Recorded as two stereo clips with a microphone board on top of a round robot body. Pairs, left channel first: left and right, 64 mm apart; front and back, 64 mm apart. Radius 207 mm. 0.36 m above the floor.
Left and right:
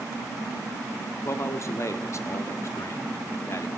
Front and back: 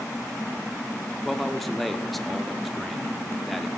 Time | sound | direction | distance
1.2 | a man speaking | 90° left | 1.8 m